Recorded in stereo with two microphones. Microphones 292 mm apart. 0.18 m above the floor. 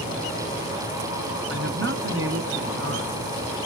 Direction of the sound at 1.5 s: 45° right (ahead or behind).